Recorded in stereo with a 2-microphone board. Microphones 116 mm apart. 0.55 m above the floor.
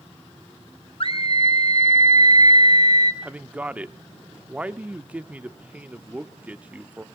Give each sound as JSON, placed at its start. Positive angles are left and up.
{"t": 1.0, "sound": "a scream", "side_deg": 50, "distance_m": 1.8}
{"t": 3.2, "sound": "a man speaking", "side_deg": -10, "distance_m": 0.8}